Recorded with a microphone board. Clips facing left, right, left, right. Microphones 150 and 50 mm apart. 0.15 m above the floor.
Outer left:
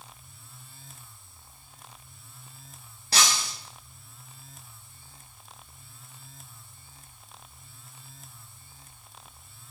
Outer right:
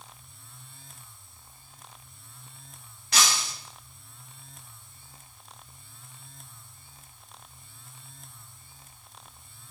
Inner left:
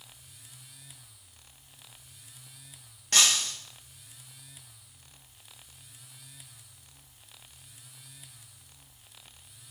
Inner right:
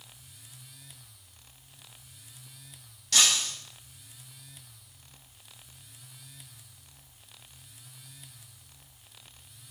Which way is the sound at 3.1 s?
35° left (ahead or behind).